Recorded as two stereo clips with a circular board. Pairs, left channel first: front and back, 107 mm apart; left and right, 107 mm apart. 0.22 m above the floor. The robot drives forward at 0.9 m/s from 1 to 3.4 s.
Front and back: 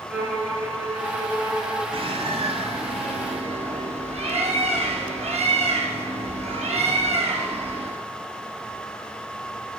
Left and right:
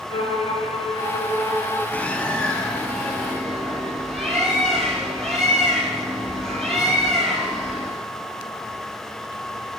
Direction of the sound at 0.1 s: 105° left.